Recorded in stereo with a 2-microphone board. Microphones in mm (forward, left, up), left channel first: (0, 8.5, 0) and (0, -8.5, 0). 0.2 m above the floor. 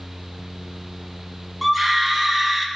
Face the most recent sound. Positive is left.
turn(degrees=-5)  # may be behind; listen again after turning